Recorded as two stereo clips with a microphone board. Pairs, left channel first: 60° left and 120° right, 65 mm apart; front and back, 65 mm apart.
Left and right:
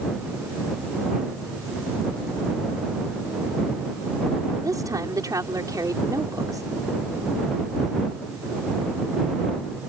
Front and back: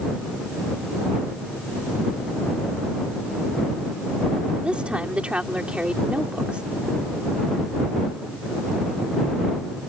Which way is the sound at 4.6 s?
110° right.